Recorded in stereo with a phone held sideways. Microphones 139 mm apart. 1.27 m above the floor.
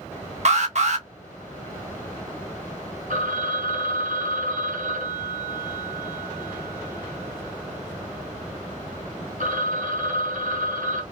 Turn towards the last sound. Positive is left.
turn(degrees=-70)  # may be behind; listen again after turning